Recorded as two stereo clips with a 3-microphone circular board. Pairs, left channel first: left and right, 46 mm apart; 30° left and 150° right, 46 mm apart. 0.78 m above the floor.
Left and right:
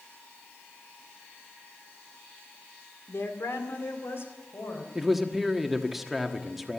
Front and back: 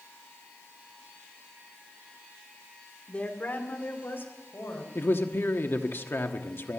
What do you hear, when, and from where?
3.1 s a woman speaking: 85° left, 2 m; by 4.8 s 55° left, 4 m
5.0 s a man speaking: 5° right, 1.3 m